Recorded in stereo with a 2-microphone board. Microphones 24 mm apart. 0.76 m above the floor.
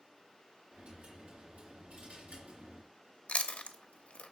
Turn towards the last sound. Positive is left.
turn(degrees=70)  # may be behind; listen again after turning